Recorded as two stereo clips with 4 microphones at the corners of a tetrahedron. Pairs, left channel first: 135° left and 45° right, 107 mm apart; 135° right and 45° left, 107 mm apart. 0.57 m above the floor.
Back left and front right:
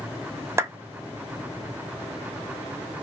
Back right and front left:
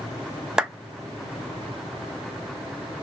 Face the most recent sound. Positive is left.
turn(degrees=-30)